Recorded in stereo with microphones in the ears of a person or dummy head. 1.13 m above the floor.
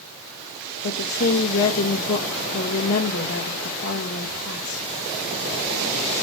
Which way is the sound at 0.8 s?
75° left (ahead or behind).